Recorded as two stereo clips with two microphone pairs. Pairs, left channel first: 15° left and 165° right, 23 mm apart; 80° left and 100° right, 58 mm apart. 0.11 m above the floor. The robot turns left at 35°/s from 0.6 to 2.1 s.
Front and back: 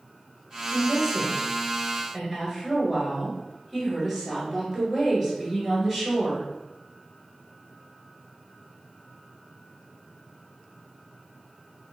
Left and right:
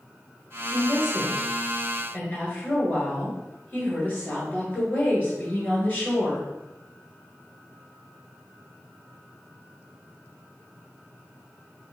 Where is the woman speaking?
175° left, 1.4 m; by 6.5 s 125° left, 1.4 m.